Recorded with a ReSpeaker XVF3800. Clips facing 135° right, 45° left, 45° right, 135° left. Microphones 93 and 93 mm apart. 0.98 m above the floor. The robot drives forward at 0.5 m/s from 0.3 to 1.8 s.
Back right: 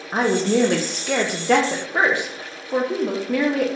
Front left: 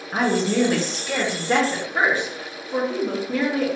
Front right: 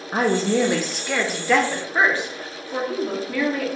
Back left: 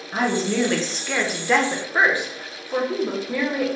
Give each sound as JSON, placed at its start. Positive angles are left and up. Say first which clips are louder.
{"t": 0.1, "sound": "a woman speaking", "louder": "back right 2 dB, front right 2 dB", "azimuth_deg": -85, "distance_m": 0.5}